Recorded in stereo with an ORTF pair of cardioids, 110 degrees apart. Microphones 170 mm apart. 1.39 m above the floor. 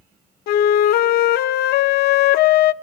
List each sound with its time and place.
0.5 s a flute: 70° left, 0.6 m